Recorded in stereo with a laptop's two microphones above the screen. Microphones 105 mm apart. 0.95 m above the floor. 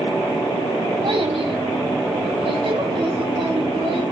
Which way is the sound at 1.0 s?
55° right (ahead or behind).